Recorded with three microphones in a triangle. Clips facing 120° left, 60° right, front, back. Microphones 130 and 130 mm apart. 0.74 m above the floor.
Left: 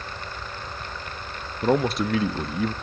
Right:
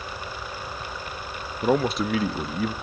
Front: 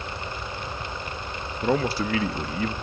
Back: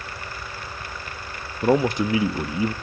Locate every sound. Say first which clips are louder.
1.6 s a man speaking: even, back 4 dB; 150° right, 0.6 m